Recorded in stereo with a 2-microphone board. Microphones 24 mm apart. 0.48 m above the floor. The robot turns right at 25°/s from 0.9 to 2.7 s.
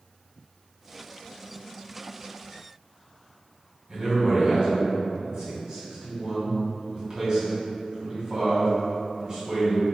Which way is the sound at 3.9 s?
30° right (ahead or behind).